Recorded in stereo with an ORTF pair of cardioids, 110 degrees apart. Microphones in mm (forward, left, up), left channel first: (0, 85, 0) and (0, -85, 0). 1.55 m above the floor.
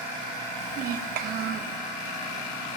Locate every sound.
0.6 s a child speaking: 65° right, 1.3 m